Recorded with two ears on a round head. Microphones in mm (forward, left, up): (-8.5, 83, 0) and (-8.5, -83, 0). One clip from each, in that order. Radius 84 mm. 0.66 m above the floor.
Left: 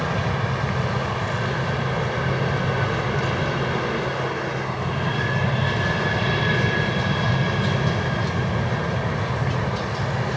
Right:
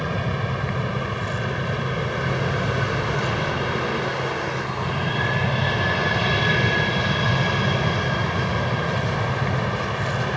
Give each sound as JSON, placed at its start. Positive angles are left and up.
{"t": 0.0, "sound": "an aircraft", "side_deg": -5}